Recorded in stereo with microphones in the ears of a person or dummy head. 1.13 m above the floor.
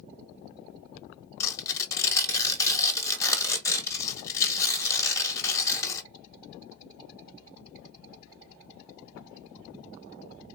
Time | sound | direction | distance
1.4 | tearing paper | 15° left (ahead or behind) | 1.1 m